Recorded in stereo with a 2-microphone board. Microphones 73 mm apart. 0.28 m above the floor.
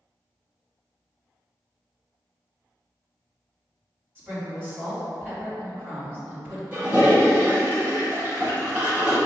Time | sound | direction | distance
4.2 | a woman speaking | 30° right (ahead or behind) | 1.8 m
6.7 | a toilet flushing | 30° right (ahead or behind) | 1.7 m